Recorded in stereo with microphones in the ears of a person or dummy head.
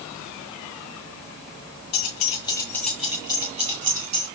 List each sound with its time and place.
1.9 s keys jangling: 45° left (ahead or behind), 0.9 m; by 4.3 s 50° right (ahead or behind), 1.4 m